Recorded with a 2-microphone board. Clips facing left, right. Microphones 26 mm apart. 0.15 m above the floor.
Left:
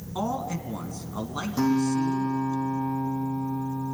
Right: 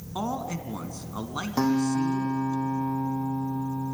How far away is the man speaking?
About 1.5 m.